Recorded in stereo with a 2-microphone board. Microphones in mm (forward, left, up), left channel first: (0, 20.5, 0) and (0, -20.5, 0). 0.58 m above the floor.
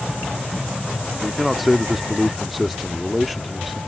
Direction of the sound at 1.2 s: Centre (ahead or behind).